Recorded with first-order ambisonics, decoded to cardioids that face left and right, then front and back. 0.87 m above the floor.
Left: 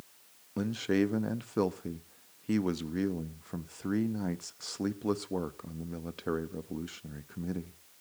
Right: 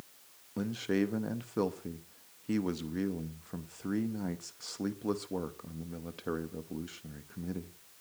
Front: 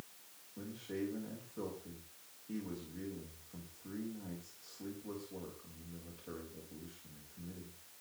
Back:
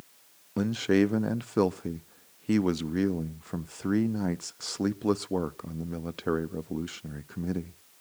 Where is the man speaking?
165° left, 0.7 m.